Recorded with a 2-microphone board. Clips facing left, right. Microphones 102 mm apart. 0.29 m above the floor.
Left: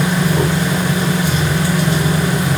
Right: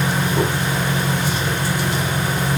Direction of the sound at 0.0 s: 85° left.